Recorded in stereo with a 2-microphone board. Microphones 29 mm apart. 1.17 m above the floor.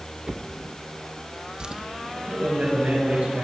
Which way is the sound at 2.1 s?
65° right (ahead or behind).